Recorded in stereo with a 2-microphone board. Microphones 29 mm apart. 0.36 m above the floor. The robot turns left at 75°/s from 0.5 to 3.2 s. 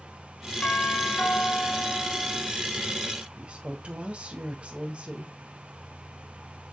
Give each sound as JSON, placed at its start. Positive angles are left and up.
{"t": 0.6, "sound": "a doorbell", "azimuth_deg": 115, "distance_m": 5.0}
{"t": 3.4, "sound": "a woman speaking", "side_deg": -50, "distance_m": 1.7}